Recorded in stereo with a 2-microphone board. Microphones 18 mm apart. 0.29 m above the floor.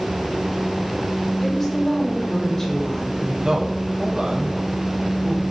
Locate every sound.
1.4 s a woman speaking: 15° left (ahead or behind), 5 m
3.4 s a man speaking: 50° right (ahead or behind), 2 m